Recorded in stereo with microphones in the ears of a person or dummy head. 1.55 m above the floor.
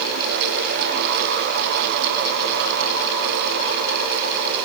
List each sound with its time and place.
Only background noise.